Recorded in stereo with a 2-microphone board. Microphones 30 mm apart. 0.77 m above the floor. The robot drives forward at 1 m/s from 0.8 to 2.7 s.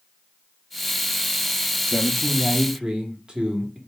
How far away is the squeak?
I don't hear a squeak.